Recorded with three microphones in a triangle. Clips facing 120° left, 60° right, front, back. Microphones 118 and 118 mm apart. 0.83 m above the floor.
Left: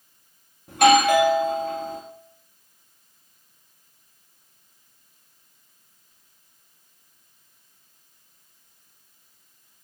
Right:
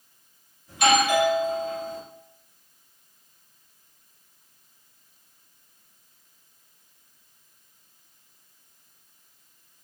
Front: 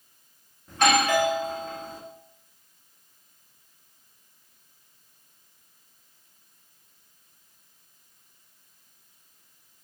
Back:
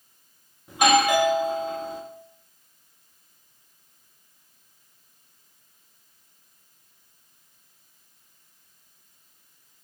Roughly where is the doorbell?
Left.